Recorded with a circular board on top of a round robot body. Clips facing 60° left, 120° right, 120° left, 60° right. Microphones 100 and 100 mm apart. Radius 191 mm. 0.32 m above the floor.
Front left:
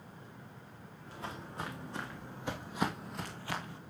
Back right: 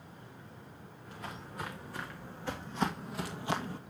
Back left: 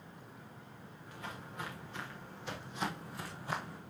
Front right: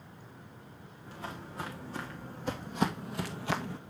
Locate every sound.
1.1 s footsteps: straight ahead, 3 m; by 3.8 s 75° right, 0.8 m